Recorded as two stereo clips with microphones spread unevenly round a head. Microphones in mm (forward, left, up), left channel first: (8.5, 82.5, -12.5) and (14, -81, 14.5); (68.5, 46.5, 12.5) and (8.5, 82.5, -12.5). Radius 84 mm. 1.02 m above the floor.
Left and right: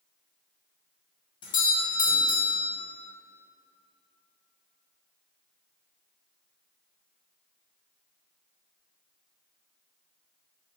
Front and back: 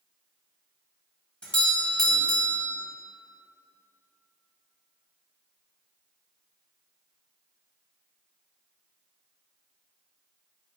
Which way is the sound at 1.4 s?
60° left.